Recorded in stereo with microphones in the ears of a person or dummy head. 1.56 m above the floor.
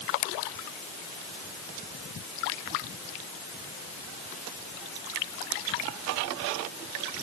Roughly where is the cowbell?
I don't hear a cowbell.